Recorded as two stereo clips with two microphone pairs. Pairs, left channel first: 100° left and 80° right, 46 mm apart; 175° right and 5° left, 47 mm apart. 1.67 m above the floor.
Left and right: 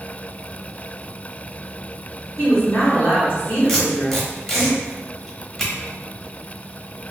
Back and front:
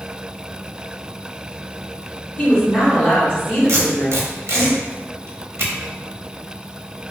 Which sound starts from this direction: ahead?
Tape being pulled, at 3.7 s.